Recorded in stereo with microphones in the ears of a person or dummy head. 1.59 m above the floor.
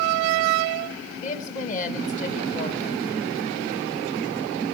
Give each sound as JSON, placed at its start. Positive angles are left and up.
{"t": 1.2, "sound": "a woman speaking", "side_deg": 40, "distance_m": 2.0}